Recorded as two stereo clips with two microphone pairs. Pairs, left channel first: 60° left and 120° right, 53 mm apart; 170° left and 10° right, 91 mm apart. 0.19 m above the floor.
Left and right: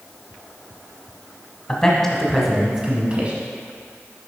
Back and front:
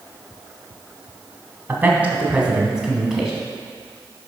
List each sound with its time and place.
1.7 s a man speaking: 25° left, 1.1 m; by 3.3 s 100° right, 1.1 m